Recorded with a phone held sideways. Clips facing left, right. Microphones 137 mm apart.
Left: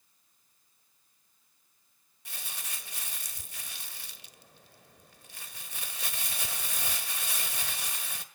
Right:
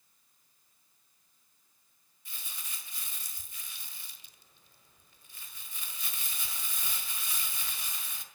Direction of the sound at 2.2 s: 75° left (ahead or behind).